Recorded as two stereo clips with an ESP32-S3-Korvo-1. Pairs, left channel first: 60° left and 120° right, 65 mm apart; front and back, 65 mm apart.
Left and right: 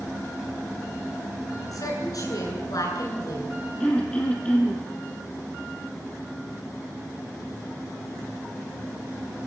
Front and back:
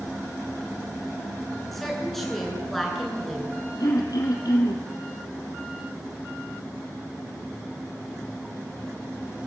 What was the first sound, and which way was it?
A woman speaking, 85° left.